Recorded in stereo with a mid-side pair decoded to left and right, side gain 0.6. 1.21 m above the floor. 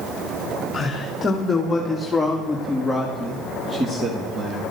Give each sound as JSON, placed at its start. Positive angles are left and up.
{"t": 0.7, "sound": "a man speaking", "azimuth_deg": 25, "distance_m": 2.5}